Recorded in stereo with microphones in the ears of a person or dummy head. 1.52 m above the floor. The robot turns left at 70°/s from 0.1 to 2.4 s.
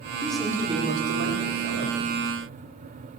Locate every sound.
0.2 s a man speaking: 10° left, 5.5 m; by 2.0 s 115° right, 5.5 m